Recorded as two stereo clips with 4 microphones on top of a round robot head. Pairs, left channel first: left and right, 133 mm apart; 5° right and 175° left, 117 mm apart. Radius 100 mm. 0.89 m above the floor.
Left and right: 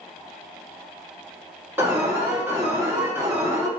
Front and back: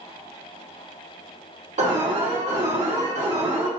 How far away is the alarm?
About 2 m.